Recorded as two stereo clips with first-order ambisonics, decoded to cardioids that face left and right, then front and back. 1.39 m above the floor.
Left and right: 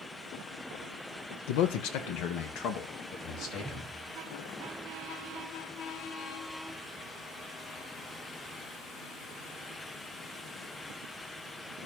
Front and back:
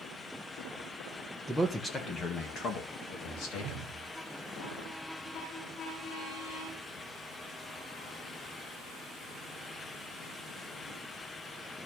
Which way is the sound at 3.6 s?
160° right.